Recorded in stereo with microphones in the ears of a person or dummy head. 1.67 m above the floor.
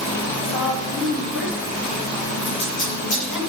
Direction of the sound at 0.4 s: 65° left (ahead or behind).